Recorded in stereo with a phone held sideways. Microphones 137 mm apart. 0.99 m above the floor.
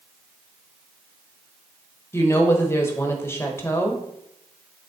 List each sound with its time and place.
2.1 s a woman speaking: 15° left (ahead or behind), 1.2 m